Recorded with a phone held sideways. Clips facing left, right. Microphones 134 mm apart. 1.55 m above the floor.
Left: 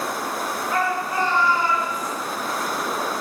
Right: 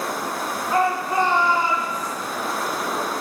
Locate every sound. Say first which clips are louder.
0.7 s a shout: right 4 dB; 30° right (ahead or behind), 3.5 m; by 2.1 s 10° right (ahead or behind), 3.5 m